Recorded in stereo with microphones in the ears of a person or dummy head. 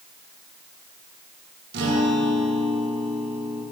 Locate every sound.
1.7 s a guitar: 55° right (ahead or behind), 1.6 m